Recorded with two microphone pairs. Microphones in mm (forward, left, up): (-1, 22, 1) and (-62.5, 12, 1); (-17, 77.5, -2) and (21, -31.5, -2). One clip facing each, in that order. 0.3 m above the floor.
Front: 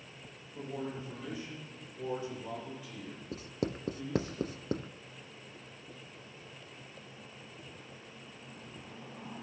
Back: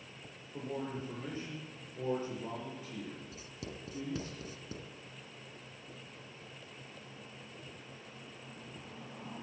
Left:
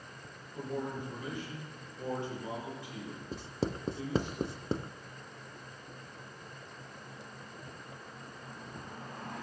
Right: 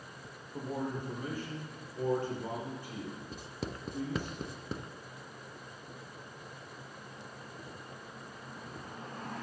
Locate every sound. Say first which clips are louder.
0.5 s a man speaking: even, right 1 dB; 120° right, 8 m
3.3 s writing: front 10 dB, left 6 dB; 50° left, 0.5 m